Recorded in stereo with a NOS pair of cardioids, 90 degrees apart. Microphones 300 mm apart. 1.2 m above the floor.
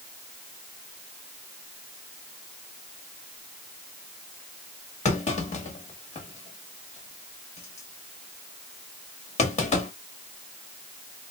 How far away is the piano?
No piano in this recording.